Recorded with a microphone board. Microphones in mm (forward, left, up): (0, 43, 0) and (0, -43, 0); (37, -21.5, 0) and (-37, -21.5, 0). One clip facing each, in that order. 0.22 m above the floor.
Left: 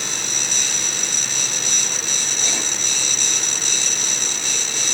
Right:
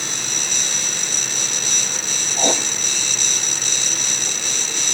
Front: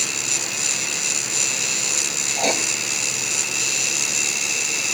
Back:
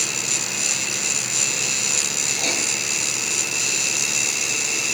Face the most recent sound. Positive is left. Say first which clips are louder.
# right 11 dB, front 6 dB
turn(degrees=-55)